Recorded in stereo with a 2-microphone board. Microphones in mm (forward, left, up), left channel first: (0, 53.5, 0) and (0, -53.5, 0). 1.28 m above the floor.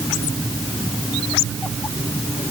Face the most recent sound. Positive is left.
No sound to turn to.